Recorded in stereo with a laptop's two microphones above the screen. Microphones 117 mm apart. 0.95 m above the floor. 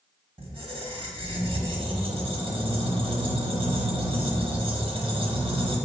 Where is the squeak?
50° right (ahead or behind), 0.8 m.